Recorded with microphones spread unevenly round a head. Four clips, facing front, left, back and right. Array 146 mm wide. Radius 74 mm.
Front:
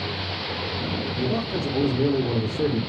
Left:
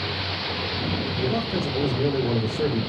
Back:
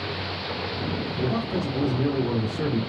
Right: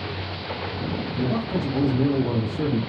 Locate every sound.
1.2 s a man speaking: 75° right, 2.5 m